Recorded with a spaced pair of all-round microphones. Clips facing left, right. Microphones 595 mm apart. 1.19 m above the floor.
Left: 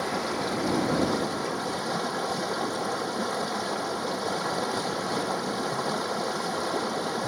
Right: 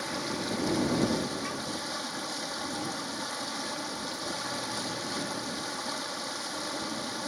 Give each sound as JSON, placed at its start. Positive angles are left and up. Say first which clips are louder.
{"t": 0.0, "sound": "running water", "louder": "left 5 dB", "side_deg": 65}